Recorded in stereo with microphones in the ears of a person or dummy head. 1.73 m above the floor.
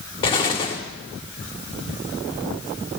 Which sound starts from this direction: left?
An explosion, at 0.2 s.